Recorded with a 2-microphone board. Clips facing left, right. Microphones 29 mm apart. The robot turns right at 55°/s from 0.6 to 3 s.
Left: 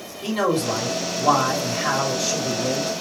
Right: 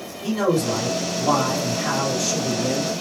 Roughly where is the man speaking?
Left.